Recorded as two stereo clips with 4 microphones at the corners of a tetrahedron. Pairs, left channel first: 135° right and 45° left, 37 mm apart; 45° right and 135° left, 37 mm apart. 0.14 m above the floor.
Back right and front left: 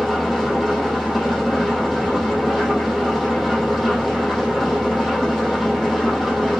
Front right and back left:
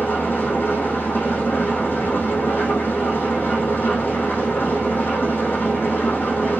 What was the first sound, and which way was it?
An engine running, 35° right.